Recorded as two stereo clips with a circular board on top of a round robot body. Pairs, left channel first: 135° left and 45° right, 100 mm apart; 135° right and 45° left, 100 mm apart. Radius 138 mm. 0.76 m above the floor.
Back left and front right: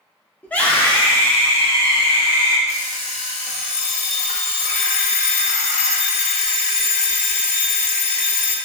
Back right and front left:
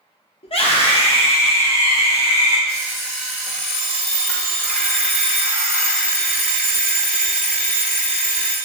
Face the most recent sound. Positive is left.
turn(degrees=145)